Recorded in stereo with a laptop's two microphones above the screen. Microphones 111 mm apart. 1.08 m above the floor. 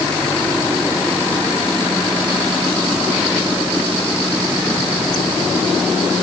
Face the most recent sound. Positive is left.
No sound to turn to.